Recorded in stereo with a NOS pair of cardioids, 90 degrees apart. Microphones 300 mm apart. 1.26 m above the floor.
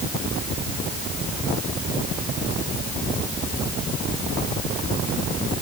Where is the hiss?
No hiss in this recording.